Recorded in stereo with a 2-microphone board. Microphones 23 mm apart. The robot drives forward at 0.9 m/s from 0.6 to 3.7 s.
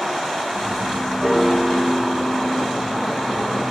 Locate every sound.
1.2 s a piano: 10° right (ahead or behind), 0.8 m; by 3.2 s 5° right (ahead or behind), 2.5 m